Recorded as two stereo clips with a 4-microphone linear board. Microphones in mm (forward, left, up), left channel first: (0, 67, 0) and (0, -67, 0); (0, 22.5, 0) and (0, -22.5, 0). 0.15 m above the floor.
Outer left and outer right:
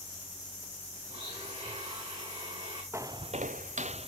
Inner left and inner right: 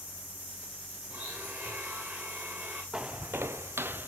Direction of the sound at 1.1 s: 45° right (ahead or behind).